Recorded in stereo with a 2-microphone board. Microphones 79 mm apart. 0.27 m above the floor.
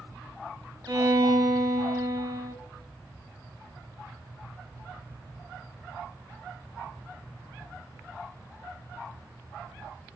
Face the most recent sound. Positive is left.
turn(degrees=-60)  # may be behind; listen again after turning